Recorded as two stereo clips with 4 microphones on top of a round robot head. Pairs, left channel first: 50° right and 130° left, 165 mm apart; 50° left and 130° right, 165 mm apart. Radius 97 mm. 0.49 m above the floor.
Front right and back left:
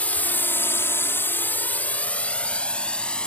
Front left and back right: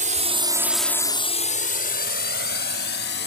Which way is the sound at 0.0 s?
130° right.